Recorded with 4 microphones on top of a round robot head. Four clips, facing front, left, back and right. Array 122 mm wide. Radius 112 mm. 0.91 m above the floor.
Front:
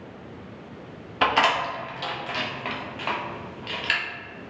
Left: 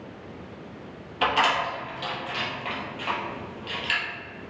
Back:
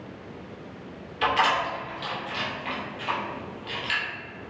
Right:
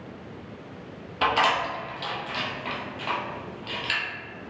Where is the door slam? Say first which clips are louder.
Even, front 2 dB; 10° right, 2.0 m.